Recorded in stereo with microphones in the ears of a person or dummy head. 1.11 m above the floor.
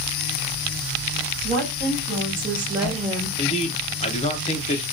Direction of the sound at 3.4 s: 35° left (ahead or behind).